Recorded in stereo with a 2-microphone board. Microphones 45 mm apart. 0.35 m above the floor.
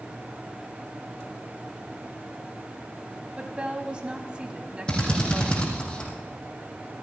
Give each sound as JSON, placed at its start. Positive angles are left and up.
{"t": 3.4, "sound": "a woman speaking", "side_deg": -25, "distance_m": 3.0}
{"t": 4.9, "sound": "a drill", "side_deg": 20, "distance_m": 5.5}